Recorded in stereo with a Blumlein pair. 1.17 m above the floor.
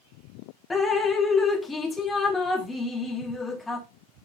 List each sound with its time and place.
0.7 s dripping: 10° left, 1.3 m